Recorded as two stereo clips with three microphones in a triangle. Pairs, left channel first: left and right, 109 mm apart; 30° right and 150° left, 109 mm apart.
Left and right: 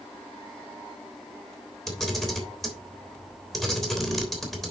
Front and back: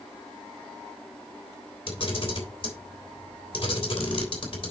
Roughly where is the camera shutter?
Ahead.